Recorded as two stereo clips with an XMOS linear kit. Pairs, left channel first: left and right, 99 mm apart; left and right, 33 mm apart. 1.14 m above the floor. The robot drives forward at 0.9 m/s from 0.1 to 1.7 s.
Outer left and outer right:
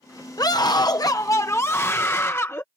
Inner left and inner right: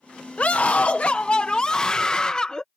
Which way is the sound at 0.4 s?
40° left (ahead or behind).